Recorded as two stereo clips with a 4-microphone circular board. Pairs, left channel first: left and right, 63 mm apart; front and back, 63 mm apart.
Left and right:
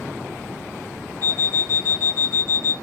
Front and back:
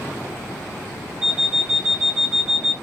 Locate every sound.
1.2 s an alarm clock: 100° right, 0.9 m